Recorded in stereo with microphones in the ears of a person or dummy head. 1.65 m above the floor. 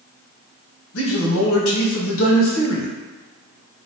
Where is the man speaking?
80° left, 1.0 m.